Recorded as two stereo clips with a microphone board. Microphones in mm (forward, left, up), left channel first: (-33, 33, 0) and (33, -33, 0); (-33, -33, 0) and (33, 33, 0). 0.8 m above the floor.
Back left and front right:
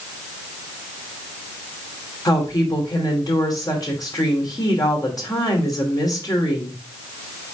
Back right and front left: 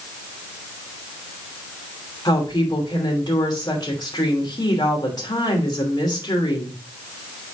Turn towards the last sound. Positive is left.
turn(degrees=-175)